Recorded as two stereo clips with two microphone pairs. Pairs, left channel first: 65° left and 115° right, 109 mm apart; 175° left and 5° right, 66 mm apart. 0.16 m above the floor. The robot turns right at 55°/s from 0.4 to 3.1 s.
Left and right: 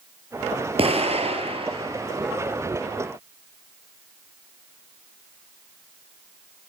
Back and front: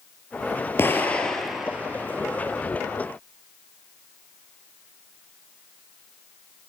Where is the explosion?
135° right, 3 m; by 2.6 s 35° right, 3 m.